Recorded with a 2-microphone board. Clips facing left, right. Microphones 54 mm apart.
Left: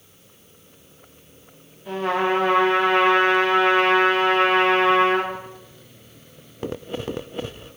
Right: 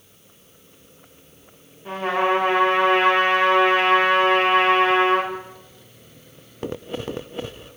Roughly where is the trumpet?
Right.